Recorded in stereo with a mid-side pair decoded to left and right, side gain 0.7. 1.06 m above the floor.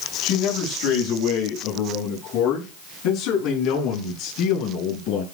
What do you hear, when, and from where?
0.2 s a man speaking: 70° left, 6.5 m; by 5.2 s 55° left, 10 m